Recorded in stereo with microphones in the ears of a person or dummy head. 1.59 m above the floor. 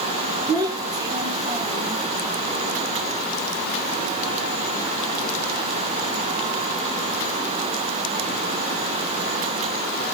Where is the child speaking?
20° right (ahead or behind), 1.1 m.